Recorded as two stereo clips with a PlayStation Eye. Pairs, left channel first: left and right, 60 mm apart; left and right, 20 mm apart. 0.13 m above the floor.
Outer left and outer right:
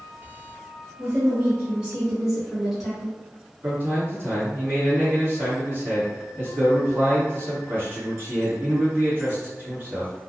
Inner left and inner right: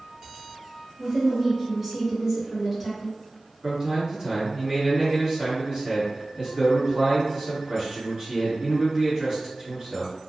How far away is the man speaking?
About 1.5 m.